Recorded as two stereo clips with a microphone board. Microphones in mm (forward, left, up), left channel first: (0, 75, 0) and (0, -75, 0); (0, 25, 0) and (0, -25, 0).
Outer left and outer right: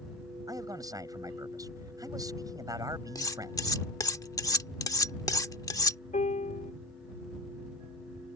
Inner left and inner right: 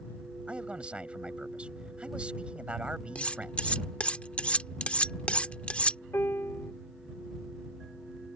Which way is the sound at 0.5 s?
25° right (ahead or behind).